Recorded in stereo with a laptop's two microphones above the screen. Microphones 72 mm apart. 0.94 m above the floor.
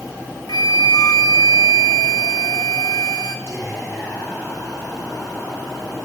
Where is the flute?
65° left (ahead or behind), 0.7 m.